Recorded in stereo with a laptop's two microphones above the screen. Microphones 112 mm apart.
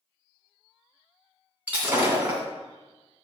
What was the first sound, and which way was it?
Breaking glass, 15° right (ahead or behind).